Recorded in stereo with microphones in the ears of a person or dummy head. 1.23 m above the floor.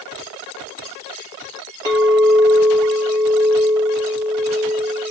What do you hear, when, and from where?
1.9 s a clink: 25° right (ahead or behind), 1.1 m